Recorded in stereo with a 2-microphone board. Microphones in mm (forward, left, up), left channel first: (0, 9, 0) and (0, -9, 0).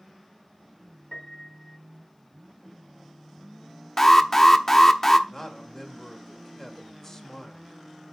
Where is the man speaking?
30° left (ahead or behind), 1.7 m.